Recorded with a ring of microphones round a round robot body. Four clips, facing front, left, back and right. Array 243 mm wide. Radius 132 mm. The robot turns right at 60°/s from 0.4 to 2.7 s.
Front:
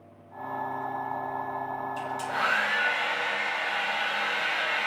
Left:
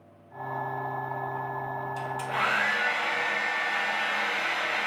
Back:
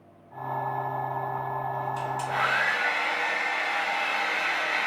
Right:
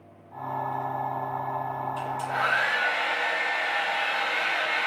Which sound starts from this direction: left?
A hair dryer, at 2.0 s.